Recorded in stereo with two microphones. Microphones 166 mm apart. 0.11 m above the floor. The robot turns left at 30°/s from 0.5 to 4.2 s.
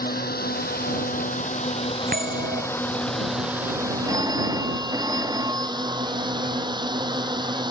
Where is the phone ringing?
20° right (ahead or behind); by 6.1 s 25° right (ahead or behind).